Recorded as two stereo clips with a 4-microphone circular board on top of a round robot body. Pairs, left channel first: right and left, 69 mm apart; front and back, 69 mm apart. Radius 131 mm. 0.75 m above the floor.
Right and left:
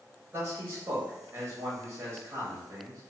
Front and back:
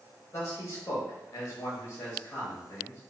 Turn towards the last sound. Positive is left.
turn(degrees=35)